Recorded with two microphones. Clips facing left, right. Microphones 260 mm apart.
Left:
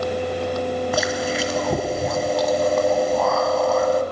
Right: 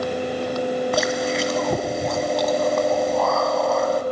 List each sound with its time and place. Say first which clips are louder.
0.9 s chewing: right 1 dB; centre (ahead or behind), 1.2 m